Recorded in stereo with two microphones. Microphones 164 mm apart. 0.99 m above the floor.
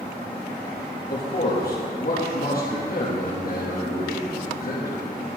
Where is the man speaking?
60° left (ahead or behind), 1.3 m.